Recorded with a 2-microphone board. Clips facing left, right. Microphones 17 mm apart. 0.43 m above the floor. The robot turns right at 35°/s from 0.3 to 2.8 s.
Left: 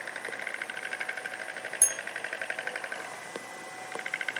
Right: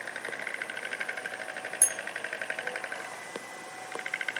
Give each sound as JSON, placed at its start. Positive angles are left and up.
{"t": 1.8, "sound": "a bell", "side_deg": 25, "distance_m": 1.0}